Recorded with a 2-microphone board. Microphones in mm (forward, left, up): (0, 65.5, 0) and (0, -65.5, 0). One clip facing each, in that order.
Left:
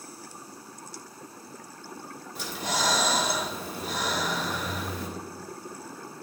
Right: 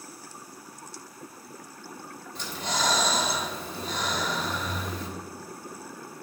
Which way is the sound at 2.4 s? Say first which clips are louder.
Even; 5° left (ahead or behind).